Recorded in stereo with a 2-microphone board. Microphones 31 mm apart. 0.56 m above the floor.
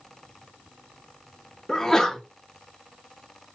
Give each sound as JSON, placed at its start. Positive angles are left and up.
{"t": 1.7, "sound": "a sneeze", "side_deg": 15, "distance_m": 0.6}